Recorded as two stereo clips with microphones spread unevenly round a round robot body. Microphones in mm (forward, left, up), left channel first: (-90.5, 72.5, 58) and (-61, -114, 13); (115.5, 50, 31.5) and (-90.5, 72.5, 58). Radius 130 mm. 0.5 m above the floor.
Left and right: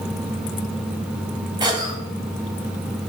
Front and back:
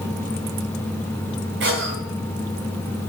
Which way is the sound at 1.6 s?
145° right.